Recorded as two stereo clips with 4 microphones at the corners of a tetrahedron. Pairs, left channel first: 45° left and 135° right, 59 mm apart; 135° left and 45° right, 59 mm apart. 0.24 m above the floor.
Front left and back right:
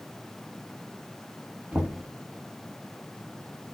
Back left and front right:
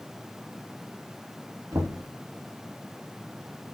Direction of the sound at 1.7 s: 70° right.